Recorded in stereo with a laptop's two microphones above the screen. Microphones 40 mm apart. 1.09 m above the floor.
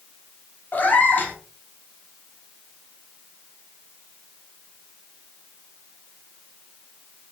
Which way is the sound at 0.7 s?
45° left (ahead or behind).